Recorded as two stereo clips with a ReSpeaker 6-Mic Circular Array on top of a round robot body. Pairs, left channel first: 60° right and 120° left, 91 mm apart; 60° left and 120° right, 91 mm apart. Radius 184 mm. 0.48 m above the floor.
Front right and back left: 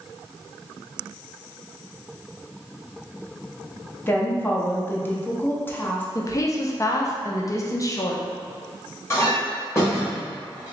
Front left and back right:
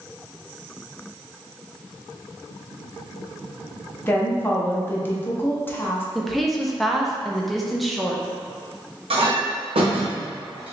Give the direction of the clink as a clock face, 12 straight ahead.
4 o'clock.